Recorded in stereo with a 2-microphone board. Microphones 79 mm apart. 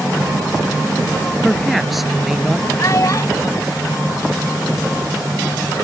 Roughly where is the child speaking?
Left.